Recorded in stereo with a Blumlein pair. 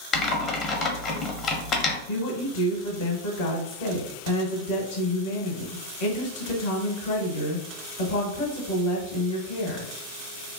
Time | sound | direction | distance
0.1 | typing on a keyboard | 25° left | 0.7 m
2.1 | a woman speaking | 55° left | 1.0 m